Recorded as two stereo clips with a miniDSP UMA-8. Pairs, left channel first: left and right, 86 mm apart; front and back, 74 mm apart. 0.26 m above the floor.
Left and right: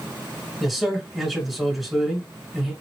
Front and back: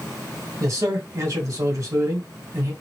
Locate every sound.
0.6 s a man speaking: 175° right, 1.9 m